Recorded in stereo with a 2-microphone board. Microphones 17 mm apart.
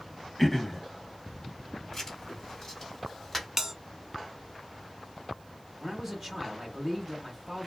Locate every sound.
0.4 s throat clearing: 15° left (ahead or behind), 0.5 m
1.9 s writing: 20° left (ahead or behind), 1.5 m
3.6 s a bell: 25° right (ahead or behind), 0.6 m
5.8 s a man speaking: 10° right (ahead or behind), 1.0 m